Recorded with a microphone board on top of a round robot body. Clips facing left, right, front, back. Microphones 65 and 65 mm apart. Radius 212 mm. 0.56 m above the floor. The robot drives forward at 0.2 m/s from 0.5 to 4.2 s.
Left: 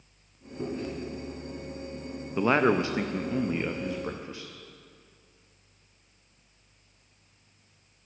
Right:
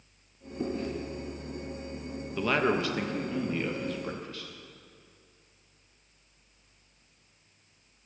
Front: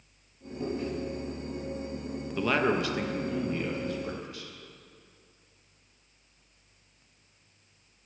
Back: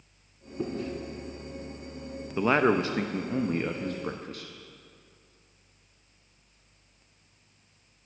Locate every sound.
0.6 s chewing: 170° left, 2.5 m
2.4 s a man speaking: 130° left, 0.7 m; by 4.5 s 155° left, 0.9 m